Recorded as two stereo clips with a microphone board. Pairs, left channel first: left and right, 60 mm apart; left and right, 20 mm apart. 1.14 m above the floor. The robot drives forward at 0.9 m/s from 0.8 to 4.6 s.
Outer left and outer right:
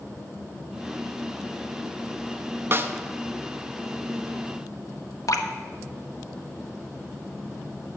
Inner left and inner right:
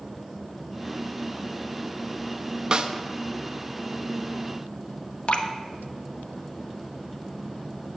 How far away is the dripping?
About 1.1 m.